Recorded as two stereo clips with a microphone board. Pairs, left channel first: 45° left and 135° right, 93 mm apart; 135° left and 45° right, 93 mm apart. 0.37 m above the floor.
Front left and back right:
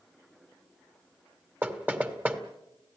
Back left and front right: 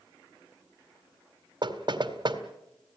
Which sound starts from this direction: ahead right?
Knocking, at 1.6 s.